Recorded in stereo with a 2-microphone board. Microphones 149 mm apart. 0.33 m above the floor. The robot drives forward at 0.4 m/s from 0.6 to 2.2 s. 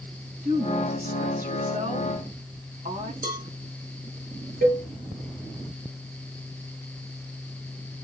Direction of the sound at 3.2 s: 60° right (ahead or behind).